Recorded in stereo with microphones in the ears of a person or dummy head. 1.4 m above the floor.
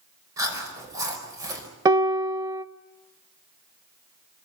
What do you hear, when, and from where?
0.4 s chewing: 20° right (ahead or behind), 4 m
1.9 s a piano: 20° right (ahead or behind), 0.7 m